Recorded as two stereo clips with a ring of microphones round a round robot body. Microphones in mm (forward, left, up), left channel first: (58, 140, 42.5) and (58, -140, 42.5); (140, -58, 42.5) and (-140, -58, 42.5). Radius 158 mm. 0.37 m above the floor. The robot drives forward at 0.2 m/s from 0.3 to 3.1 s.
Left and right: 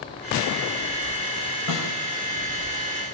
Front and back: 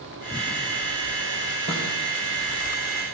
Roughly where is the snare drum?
Behind left.